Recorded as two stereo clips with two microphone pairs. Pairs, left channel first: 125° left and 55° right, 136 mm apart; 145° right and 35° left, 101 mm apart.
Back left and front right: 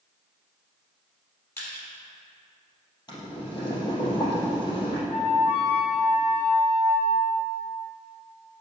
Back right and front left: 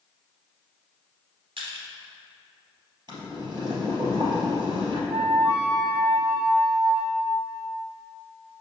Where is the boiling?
75° left, 3 m.